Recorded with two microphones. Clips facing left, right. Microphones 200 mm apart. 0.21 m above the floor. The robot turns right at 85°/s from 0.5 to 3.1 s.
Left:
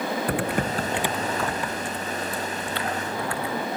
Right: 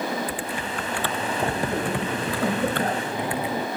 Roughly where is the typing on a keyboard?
Behind left.